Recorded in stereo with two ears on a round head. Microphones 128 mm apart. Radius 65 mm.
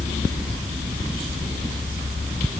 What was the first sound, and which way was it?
Only background noise.